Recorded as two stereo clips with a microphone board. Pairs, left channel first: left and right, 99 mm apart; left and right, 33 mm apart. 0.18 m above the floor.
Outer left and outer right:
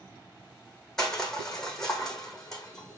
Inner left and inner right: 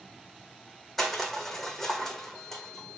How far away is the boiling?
No boiling in this recording.